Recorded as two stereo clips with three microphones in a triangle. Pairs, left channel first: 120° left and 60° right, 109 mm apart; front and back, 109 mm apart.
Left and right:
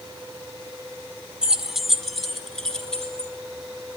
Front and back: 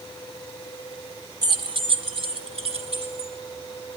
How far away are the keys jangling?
About 1.1 m.